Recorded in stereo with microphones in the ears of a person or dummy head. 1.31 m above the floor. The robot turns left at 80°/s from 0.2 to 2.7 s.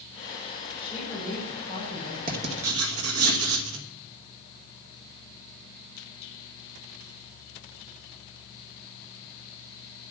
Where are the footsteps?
No footsteps in this recording.